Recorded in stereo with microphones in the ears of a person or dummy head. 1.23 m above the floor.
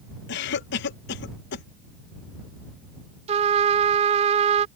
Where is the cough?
60° left (ahead or behind).